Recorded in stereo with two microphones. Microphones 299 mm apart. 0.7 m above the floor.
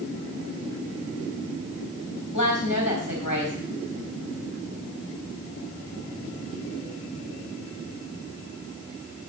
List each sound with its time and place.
2.3 s a woman speaking: 80° left, 4 m